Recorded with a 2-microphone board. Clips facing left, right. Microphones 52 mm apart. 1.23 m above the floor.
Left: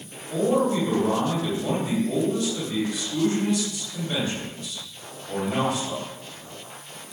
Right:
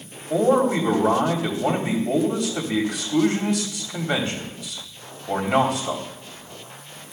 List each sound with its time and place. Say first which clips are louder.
0.3 s a man speaking: right 4 dB; 85° right, 3.5 m